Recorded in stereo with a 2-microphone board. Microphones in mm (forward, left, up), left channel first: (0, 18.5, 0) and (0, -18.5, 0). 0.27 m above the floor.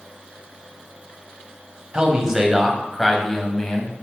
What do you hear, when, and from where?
1.9 s a man speaking: 25° right (ahead or behind), 1.4 m; by 3.9 s 20° left (ahead or behind), 1.7 m